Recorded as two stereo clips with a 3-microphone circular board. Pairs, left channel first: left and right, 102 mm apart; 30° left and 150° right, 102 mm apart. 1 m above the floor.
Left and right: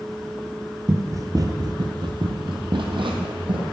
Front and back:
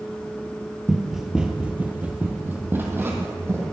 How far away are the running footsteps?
About 1.1 m.